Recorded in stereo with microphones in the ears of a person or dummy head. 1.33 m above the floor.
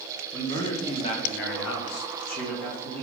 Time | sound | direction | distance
0.3 | a man speaking | 15° left (ahead or behind) | 1.1 m